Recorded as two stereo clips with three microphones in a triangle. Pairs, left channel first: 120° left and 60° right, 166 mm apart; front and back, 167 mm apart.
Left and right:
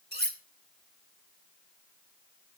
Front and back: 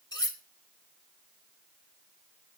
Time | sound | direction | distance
0.1 | cutlery clinking | 65° right | 1.8 m